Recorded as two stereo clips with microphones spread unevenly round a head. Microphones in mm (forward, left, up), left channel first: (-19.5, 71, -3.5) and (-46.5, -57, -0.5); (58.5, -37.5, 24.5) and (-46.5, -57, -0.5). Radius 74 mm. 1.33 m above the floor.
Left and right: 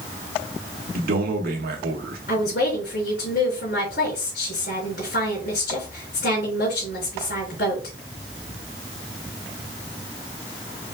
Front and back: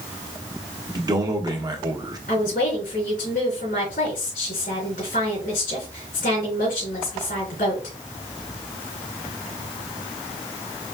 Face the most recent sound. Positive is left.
turn(degrees=50)